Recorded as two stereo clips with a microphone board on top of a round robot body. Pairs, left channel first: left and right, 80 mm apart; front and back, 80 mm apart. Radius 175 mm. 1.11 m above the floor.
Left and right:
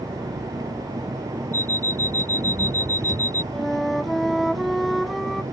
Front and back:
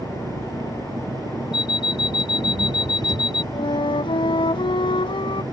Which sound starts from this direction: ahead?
A flute, at 3.5 s.